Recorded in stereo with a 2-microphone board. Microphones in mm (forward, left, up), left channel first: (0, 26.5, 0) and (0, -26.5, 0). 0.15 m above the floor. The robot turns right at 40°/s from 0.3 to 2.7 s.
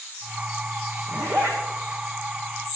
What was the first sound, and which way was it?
A zipper, 60° right (ahead or behind).